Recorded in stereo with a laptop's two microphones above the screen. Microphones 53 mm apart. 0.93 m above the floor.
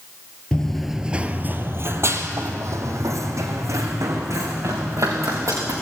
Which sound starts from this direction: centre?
Running footsteps, at 0.5 s.